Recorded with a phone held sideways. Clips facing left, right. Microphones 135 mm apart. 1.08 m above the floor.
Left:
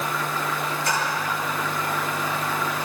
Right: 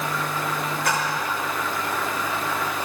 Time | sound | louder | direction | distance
0.8 | a splash | right 1 dB | 60° right (ahead or behind) | 6 m